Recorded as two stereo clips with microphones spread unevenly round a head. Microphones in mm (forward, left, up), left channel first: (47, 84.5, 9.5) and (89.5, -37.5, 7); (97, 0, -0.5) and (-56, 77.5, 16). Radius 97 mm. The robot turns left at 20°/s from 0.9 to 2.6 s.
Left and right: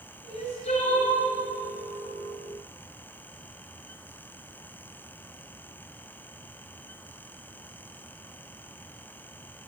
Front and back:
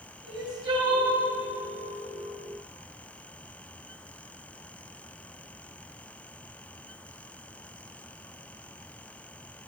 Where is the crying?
90° left, 3 m; by 1.2 s 85° left, 3 m.